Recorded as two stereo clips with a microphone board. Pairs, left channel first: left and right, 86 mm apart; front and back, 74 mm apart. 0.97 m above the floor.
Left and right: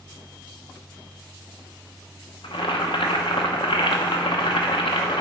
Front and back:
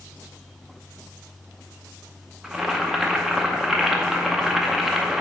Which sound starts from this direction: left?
Boiling, at 2.4 s.